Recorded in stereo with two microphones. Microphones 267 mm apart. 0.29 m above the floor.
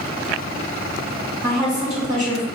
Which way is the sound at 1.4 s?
30° right (ahead or behind).